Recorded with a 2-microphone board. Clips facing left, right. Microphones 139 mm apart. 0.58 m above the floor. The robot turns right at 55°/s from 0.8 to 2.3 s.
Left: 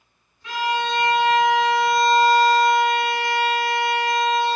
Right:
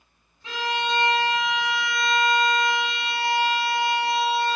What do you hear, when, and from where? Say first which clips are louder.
0.4 s a violin: left 4 dB; 30° right, 0.8 m; by 4.6 s 50° left, 0.8 m